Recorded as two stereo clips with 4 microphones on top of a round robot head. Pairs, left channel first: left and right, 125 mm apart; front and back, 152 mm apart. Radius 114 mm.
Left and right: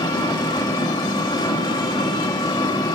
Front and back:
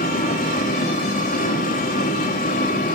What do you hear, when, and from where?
0.0 s an engine running: 30° left, 2 m